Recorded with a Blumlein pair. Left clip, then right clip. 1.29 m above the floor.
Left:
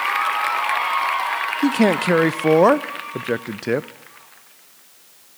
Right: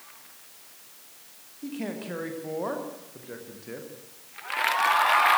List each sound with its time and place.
1.6 s a man speaking: 50° left, 0.5 m